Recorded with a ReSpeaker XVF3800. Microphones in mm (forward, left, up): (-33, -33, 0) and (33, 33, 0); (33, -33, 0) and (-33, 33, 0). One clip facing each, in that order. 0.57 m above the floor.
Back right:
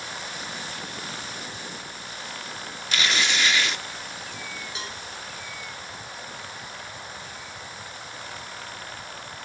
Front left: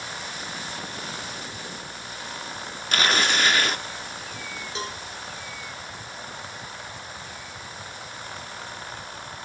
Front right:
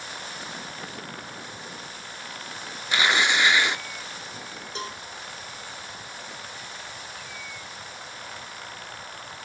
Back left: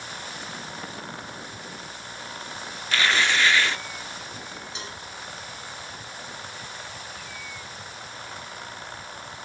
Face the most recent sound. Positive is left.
turn(degrees=-5)